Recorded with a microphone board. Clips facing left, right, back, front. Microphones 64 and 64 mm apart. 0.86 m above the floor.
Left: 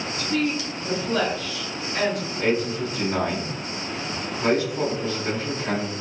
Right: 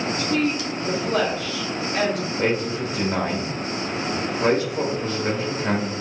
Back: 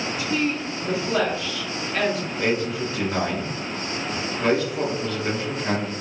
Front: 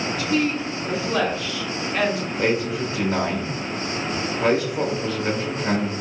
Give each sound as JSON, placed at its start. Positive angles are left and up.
{"t": 0.2, "sound": "a woman speaking", "azimuth_deg": -120, "distance_m": 1.3}
{"t": 2.4, "sound": "a man speaking", "azimuth_deg": -85, "distance_m": 1.3}